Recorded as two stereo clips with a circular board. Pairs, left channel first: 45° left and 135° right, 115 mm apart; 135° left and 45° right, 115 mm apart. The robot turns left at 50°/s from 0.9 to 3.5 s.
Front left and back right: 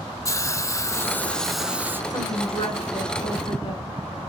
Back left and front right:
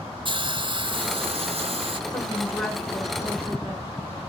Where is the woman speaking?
90° left, 2.5 m; by 3.8 s 20° left, 2.5 m.